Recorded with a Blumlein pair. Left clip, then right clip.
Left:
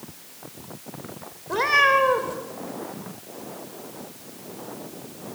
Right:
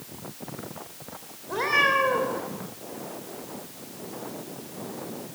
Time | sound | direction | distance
1.5 | a cat meowing | 15° left | 4 m